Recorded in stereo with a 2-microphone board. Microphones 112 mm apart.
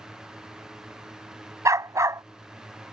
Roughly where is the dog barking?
Right.